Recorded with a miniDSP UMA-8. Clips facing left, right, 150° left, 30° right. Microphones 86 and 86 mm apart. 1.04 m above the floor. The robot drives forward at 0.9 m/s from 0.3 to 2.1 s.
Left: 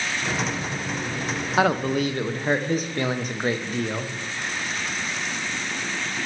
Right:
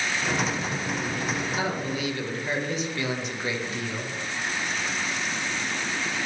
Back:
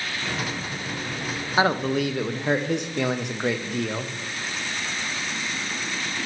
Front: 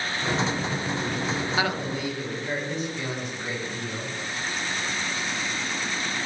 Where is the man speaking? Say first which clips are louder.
Left 7 dB, back 5 dB; 85° left, 0.5 m; by 4.1 s 130° left, 0.7 m.